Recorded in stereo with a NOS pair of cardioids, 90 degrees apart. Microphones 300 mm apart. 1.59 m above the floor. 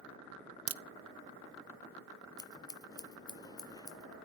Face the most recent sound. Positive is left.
turn(degrees=15)